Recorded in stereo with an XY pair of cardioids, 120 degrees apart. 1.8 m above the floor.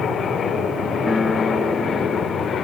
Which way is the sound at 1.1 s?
20° left.